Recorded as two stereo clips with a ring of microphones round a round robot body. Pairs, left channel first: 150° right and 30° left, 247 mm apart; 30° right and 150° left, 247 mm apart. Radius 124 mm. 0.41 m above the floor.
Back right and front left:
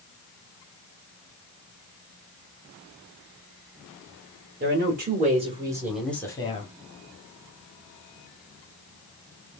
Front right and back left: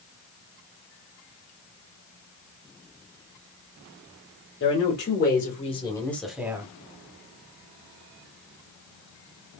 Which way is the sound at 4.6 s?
5° right.